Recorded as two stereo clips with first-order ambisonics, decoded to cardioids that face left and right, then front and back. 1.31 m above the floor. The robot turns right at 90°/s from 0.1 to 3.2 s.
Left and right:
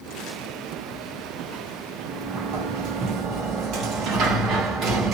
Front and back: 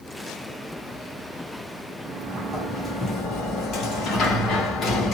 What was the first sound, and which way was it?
A sliding door, 155° right.